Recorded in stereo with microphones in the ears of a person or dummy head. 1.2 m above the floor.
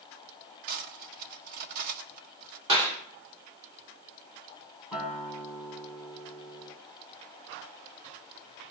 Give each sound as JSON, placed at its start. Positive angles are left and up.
{"t": 0.7, "sound": "cutlery clinking", "side_deg": -50, "distance_m": 1.0}
{"t": 2.7, "sound": "a clap", "side_deg": -30, "distance_m": 3.0}
{"t": 4.9, "sound": "a guitar", "side_deg": -5, "distance_m": 1.4}